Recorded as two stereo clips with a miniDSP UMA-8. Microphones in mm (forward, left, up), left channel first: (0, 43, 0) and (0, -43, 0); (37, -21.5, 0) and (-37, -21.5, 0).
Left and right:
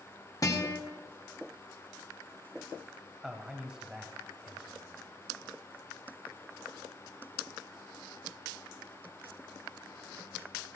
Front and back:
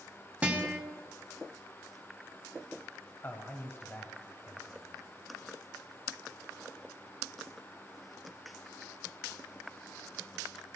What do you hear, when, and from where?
0.4 s a guitar: 115° left, 1.7 m
3.2 s a man speaking: 15° right, 1.1 m